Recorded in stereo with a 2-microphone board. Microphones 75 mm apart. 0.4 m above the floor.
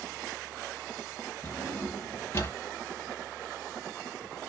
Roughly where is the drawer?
Left.